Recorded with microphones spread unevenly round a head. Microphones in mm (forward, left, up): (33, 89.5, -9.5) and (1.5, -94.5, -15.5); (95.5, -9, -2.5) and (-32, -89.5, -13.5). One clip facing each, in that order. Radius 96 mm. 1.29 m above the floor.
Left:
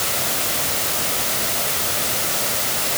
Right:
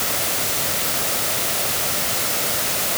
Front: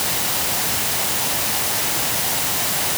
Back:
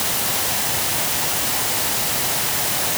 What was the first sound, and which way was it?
Only background noise.